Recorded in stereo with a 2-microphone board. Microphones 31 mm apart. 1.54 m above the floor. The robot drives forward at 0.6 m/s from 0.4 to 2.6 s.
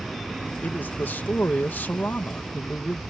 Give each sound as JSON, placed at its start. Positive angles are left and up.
{"t": 0.6, "sound": "a man speaking", "side_deg": 80}